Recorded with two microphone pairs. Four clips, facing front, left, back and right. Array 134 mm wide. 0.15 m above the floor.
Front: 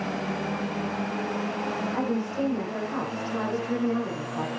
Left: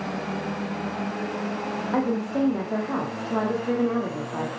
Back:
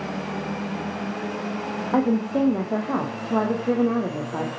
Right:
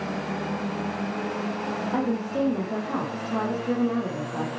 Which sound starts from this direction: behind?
A woman speaking, at 1.9 s.